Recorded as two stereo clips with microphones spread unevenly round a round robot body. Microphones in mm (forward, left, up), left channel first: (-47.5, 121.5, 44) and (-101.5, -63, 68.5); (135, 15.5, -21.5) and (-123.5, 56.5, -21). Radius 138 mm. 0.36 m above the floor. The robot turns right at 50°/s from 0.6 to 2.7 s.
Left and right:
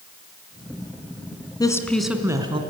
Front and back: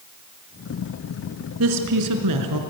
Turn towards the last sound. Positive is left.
turn(degrees=-165)